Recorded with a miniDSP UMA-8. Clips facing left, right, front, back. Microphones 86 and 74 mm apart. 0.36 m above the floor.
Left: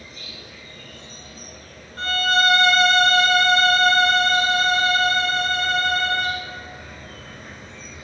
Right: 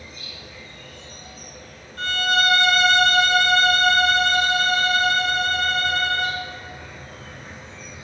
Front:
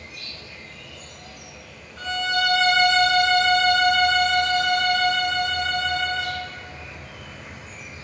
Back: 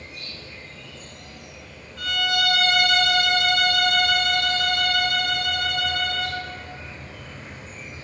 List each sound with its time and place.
0.0 s an insect: 120° left, 2.5 m
2.0 s a violin: 55° left, 0.9 m